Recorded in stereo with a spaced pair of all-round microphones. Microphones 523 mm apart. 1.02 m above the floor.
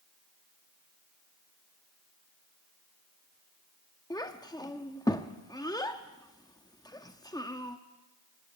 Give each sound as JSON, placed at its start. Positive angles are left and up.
{"t": 4.1, "sound": "a child speaking", "side_deg": 5, "distance_m": 0.7}